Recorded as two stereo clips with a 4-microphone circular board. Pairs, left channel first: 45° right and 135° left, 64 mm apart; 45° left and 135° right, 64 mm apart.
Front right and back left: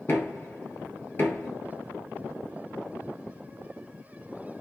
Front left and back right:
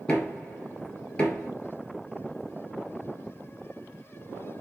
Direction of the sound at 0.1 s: 25° right.